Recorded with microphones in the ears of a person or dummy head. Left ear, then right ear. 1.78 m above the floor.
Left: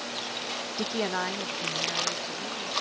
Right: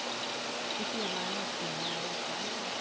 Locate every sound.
0.8 s a woman speaking: 60° left (ahead or behind); by 2.7 s 25° left (ahead or behind)